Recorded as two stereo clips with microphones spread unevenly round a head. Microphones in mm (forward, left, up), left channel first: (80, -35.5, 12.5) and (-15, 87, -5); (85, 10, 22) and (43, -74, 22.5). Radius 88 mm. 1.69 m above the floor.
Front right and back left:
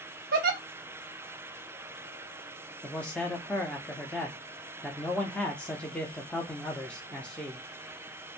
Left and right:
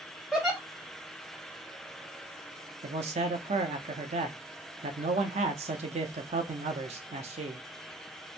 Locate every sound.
0.3 s a giggle: 155° left, 0.6 m
2.8 s a man speaking: 135° right, 0.5 m